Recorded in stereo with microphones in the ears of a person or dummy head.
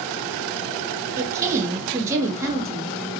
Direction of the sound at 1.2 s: 15° right (ahead or behind).